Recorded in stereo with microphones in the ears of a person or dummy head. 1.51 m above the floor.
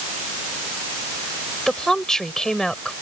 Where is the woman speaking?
Centre (ahead or behind).